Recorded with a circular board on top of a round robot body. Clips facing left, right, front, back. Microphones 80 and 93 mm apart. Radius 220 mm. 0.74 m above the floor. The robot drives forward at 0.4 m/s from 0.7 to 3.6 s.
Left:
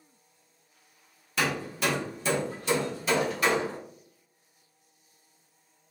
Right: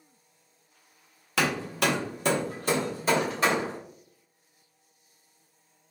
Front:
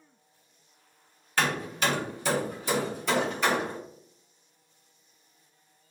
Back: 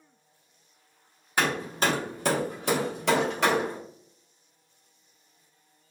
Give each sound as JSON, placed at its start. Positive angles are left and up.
{"t": 1.4, "sound": "hammering", "azimuth_deg": -105, "distance_m": 0.5}